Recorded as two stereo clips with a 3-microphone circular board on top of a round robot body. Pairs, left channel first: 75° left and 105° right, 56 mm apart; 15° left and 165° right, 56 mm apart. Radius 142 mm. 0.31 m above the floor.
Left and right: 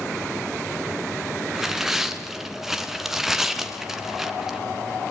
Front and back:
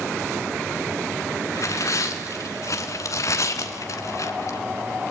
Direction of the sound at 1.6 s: 20° right.